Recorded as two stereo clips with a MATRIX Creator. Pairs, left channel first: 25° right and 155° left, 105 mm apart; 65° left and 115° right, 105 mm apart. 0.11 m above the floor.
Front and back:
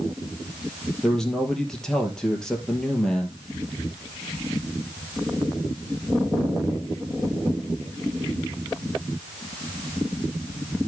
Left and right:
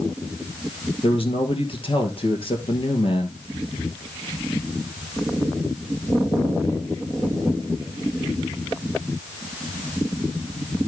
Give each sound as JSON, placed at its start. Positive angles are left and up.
{"t": 1.0, "sound": "a man speaking", "azimuth_deg": 60, "distance_m": 2.5}